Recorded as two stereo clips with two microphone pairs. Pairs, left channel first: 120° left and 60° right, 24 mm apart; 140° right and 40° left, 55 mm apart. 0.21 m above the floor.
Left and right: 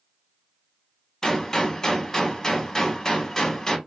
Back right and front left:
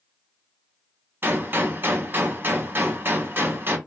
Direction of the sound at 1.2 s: 60° left.